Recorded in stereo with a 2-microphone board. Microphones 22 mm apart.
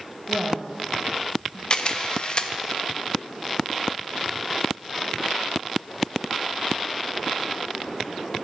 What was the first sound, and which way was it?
A woman speaking, 60° right (ahead or behind).